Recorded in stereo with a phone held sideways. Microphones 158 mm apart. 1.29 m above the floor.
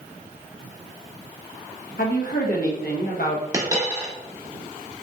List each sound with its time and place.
2.0 s a woman speaking: 70° left (ahead or behind), 1.1 m
3.5 s a dropped coin: 25° right (ahead or behind), 0.9 m